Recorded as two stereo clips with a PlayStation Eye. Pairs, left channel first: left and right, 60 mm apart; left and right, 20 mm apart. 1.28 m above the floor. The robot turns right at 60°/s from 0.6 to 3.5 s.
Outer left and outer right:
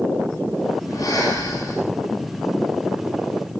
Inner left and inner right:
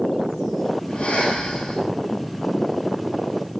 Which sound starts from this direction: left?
Breathing, at 0.9 s.